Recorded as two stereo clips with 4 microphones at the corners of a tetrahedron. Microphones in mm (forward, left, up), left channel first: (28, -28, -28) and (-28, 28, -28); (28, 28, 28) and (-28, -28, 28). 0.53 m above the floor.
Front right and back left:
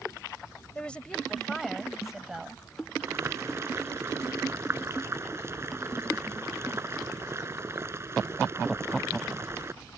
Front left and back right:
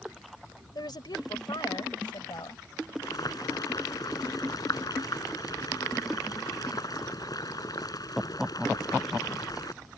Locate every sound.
0.8 s a woman speaking: 30° left; by 2.6 s 55° left
3.0 s boiling: 80° left